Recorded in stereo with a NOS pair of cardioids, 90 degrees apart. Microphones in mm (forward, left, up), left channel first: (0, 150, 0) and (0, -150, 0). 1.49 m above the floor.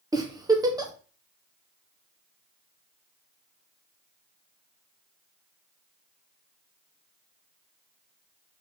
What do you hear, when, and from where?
0.1 s a giggle: 15° right, 1.1 m